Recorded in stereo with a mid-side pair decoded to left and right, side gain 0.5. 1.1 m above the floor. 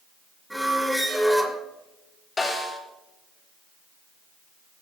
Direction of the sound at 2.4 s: 25° left.